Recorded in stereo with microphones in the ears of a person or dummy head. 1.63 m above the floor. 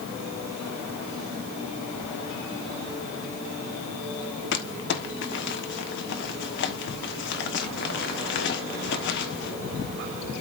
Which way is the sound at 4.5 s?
60° left (ahead or behind).